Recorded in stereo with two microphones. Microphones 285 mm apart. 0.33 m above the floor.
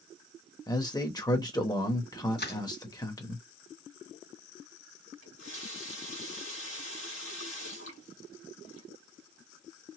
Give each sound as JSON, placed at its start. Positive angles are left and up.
{"t": 0.7, "sound": "a man speaking", "side_deg": 15, "distance_m": 0.9}
{"t": 2.4, "sound": "crushing", "side_deg": 35, "distance_m": 2.5}
{"t": 5.2, "sound": "a running tap", "side_deg": 50, "distance_m": 1.9}